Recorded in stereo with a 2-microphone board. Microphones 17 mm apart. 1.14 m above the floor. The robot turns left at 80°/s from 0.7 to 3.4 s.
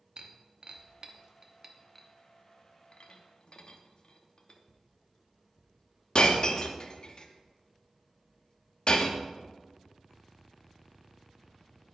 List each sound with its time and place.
0.2 s breaking glass: 50° right (ahead or behind), 0.7 m; by 9.2 s 45° left (ahead or behind), 0.7 m